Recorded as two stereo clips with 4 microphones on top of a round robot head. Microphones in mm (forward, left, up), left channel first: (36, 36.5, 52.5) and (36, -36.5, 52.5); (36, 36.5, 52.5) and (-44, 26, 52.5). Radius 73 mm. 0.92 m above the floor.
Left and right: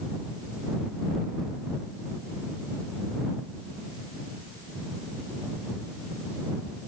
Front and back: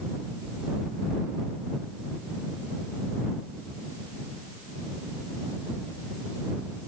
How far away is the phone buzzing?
No phone buzzing in this recording.